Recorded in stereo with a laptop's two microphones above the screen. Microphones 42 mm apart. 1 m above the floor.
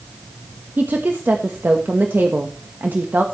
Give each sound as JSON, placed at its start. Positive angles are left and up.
{"t": 0.8, "sound": "a woman speaking", "side_deg": -50, "distance_m": 1.3}